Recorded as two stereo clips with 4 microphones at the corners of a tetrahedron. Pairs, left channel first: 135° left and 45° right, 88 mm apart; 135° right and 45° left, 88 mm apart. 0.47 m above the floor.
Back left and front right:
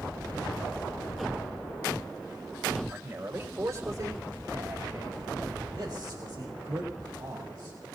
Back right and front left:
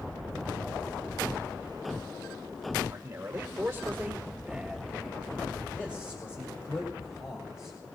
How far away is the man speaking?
About 1.7 m.